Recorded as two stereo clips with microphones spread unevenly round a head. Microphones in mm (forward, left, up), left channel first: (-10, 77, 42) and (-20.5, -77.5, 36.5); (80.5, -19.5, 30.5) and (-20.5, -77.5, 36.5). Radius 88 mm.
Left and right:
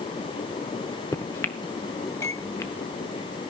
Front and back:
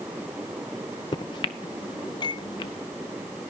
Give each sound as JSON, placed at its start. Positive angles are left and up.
{"t": 1.1, "sound": "a microwave", "azimuth_deg": 30, "distance_m": 0.5}